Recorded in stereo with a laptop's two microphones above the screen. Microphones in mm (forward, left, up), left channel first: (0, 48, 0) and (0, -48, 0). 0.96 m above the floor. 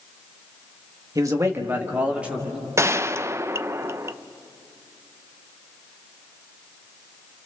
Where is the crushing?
I don't hear crushing.